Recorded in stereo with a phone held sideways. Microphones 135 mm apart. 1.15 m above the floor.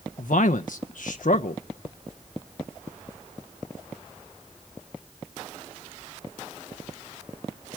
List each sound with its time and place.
0.2 s a man speaking: 75° left (ahead or behind), 0.5 m